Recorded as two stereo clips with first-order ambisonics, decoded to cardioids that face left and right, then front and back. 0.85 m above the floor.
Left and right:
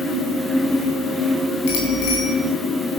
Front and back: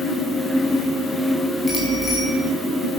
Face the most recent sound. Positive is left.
turn(degrees=75)